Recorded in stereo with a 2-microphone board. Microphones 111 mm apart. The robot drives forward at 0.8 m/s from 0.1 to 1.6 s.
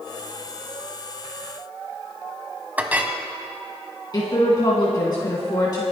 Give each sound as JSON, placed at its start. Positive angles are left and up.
{"t": 2.8, "sound": "a clink", "side_deg": -15, "distance_m": 0.9}
{"t": 4.1, "sound": "a woman speaking", "side_deg": 40, "distance_m": 1.9}